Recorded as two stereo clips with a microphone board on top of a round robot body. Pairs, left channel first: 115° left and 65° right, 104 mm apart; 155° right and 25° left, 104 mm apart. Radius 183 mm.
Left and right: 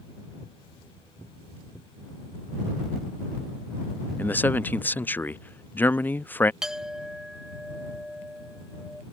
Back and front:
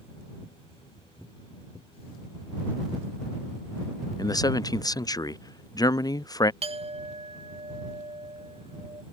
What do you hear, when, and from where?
4.2 s a man speaking: 175° left
6.6 s a clink: 20° left